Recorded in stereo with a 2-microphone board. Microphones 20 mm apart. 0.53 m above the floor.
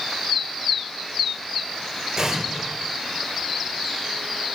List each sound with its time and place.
2.2 s an explosion: 30° right (ahead or behind), 2 m